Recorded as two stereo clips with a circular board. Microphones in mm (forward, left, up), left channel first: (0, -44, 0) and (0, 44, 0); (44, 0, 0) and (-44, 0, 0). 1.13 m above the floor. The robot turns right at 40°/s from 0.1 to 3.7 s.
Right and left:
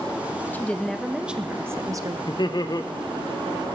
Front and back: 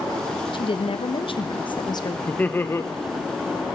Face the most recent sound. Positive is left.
turn(degrees=-15)